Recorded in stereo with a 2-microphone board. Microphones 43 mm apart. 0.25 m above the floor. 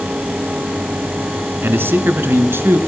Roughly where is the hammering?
No hammering in this recording.